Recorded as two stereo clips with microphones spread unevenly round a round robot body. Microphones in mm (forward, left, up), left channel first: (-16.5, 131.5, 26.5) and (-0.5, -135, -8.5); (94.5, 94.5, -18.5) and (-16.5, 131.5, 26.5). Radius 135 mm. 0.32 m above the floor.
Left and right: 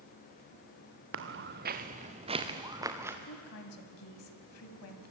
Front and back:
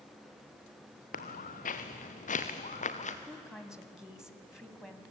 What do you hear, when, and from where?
1.1 s footsteps: 40° right, 2 m; by 3.2 s 5° right, 3 m
3.3 s a woman speaking: 65° left, 3 m